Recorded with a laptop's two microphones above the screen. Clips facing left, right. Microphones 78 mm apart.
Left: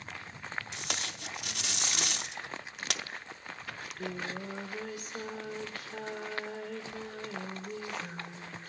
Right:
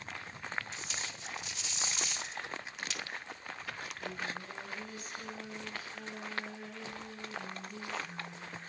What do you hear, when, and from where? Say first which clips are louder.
0.7 s tape being pulled: left 4 dB; 70° left (ahead or behind), 0.8 m
3.7 s singing: left 5 dB; 75° left (ahead or behind), 3.5 m